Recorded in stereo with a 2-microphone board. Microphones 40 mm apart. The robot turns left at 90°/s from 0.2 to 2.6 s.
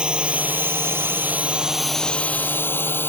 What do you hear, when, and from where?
0.0 s a drone: 25° right (ahead or behind); by 3.1 s 65° left (ahead or behind)